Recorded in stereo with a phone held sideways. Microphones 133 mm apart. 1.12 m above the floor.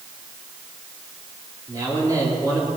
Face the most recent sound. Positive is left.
turn(degrees=-30)  # may be behind; listen again after turning